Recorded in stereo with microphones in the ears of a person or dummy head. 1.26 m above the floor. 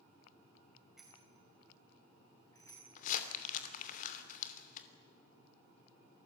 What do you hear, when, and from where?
1.0 s a bicycle bell: centre (ahead or behind), 4 m; by 2.9 s 20° left (ahead or behind), 6 m
3.0 s crumpling: 50° left (ahead or behind), 2.5 m